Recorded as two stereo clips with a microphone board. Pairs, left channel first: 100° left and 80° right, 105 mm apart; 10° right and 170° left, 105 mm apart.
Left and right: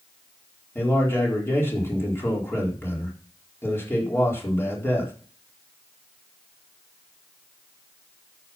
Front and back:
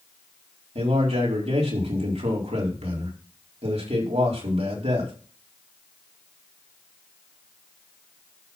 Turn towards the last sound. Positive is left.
turn(degrees=170)